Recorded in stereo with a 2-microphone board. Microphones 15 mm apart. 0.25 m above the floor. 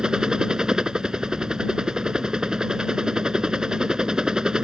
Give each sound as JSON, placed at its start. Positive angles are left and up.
{"t": 0.0, "sound": "a helicopter", "side_deg": -60}